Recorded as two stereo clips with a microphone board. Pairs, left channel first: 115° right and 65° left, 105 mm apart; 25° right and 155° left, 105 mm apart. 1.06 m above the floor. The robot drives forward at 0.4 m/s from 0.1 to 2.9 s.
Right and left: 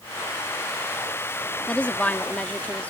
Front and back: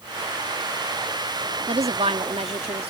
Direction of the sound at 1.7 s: 170° left.